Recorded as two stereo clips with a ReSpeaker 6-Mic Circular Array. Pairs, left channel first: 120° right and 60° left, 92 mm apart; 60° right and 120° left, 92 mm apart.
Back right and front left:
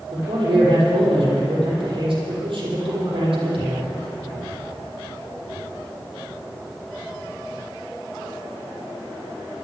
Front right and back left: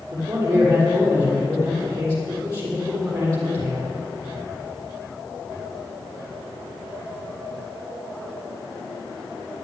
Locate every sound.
0.1 s a man speaking: 75° left, 6 m